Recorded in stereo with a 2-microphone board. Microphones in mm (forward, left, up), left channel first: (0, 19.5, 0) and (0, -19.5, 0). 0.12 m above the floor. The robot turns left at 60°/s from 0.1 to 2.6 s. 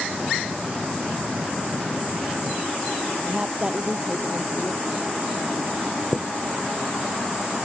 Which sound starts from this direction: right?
A woman speaking, at 3.2 s.